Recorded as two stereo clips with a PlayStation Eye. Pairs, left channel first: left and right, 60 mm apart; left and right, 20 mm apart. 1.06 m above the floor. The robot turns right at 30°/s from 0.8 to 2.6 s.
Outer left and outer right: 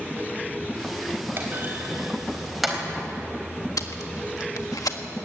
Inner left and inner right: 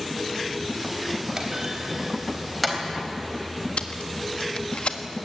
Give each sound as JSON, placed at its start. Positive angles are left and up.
{"t": 1.4, "sound": "a clunk", "side_deg": -40, "distance_m": 4.0}
{"t": 3.8, "sound": "tape being pulled", "side_deg": 80, "distance_m": 1.5}